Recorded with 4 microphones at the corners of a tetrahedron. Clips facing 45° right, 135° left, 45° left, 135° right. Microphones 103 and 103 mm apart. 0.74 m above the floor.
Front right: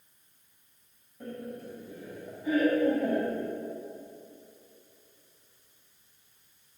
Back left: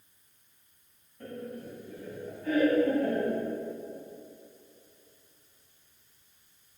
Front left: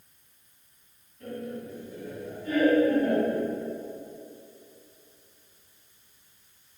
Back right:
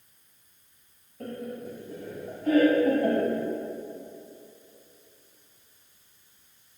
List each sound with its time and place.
1.2 s laughter: 120° right, 4 m; by 3.4 s 125° right, 5.5 m